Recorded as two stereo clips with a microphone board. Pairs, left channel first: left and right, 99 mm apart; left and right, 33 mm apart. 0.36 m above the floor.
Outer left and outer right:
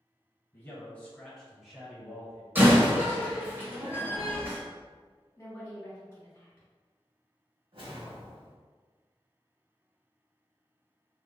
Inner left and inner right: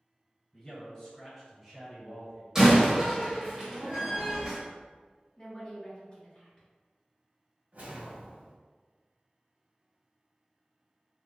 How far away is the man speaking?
About 1.9 m.